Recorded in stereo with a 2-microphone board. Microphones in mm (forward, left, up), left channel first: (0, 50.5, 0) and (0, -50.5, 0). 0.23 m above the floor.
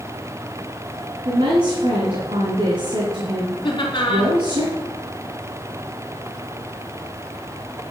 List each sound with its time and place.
1.2 s a woman speaking: 65° right (ahead or behind), 2.5 m
3.6 s laughter: 45° left (ahead or behind), 3 m